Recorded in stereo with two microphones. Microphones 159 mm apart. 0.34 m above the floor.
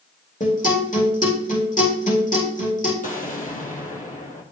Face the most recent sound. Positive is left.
turn(degrees=55)  # may be behind; listen again after turning